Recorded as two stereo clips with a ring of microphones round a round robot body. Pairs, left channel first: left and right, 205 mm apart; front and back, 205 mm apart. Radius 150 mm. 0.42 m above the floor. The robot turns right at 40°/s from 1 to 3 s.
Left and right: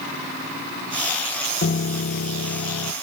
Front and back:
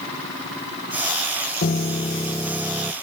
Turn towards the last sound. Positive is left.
turn(degrees=105)